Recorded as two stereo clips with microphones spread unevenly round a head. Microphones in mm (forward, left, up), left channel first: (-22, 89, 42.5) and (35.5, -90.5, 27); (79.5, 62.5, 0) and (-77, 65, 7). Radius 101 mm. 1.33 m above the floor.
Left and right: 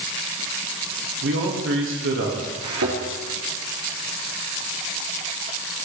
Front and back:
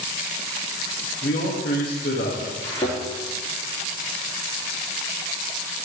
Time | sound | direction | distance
1.2 | a man speaking | 50° right | 1.9 m
2.6 | a thud | 75° right | 3.5 m